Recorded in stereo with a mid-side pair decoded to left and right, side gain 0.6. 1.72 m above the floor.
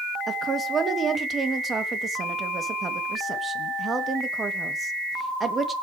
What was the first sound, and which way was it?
A woman speaking, 30° right.